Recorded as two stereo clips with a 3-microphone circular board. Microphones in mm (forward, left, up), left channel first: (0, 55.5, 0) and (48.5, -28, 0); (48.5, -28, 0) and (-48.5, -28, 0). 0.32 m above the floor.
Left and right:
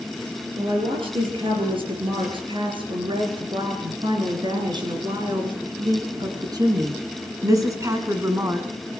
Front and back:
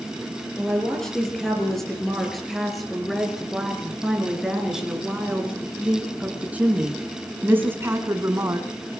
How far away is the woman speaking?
About 7 m.